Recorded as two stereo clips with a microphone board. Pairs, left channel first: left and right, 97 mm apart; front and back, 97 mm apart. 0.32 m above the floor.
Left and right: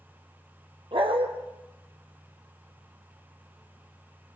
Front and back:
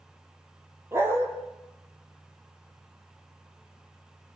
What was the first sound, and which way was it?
A dog barking, 115° right.